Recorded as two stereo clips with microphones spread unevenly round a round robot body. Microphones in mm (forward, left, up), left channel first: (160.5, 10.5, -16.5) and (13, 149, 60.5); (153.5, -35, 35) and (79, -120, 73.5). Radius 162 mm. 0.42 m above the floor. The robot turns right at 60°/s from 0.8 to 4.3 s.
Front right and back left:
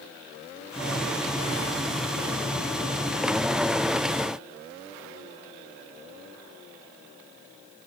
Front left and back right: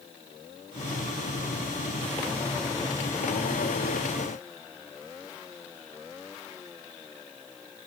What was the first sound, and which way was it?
Only background noise.